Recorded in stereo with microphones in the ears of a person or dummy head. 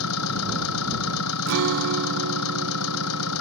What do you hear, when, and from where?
0.0 s an engine running: 85° left
1.5 s a guitar: 70° right (ahead or behind)